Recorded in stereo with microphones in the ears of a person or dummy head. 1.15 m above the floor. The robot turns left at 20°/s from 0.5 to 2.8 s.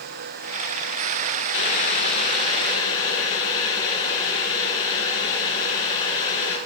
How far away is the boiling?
About 3 m.